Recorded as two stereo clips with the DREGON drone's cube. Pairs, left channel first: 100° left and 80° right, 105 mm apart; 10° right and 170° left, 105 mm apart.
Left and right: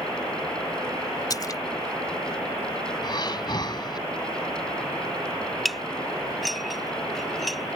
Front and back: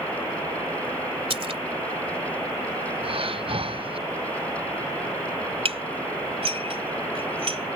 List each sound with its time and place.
1.3 s a splash: 150° left
3.0 s breathing: 145° left
5.7 s dishes clattering: 170° right